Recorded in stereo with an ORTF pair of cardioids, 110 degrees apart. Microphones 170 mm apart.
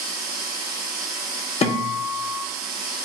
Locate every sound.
0.0 s a machine running: 65° right, 1.2 m
1.6 s a guitar: 40° left, 0.6 m